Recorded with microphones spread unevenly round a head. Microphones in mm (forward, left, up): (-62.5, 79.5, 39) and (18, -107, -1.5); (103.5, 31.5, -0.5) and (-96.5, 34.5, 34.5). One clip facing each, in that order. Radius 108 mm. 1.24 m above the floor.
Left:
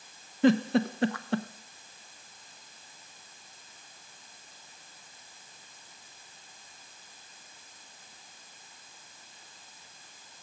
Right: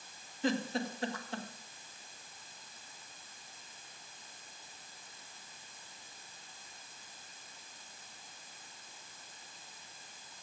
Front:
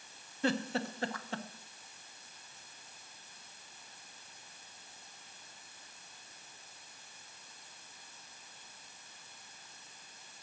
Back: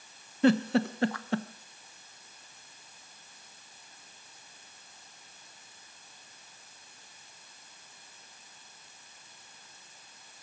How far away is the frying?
No frying in this recording.